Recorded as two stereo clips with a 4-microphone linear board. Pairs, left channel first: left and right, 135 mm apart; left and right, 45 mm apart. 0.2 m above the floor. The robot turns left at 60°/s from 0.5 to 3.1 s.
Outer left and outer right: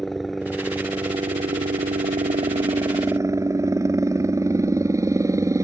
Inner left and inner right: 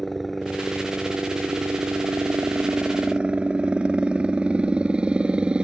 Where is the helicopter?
Straight ahead; by 5.7 s 155° right.